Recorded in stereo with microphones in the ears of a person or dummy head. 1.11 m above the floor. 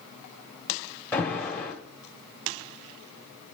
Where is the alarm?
10° left (ahead or behind), 1.4 m.